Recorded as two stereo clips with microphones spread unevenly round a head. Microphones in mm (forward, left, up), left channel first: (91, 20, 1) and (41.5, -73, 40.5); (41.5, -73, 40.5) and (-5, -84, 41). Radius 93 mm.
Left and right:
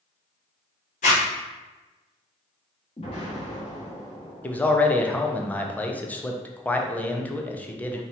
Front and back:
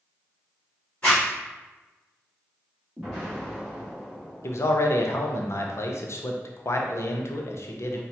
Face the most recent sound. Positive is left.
turn(degrees=-5)